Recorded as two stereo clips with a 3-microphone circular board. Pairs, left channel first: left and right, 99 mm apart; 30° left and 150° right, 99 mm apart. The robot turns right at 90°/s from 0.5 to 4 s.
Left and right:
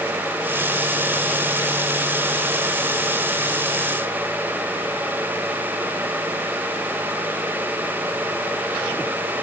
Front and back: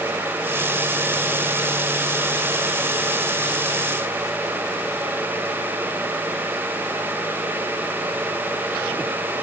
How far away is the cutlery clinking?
I don't hear cutlery clinking.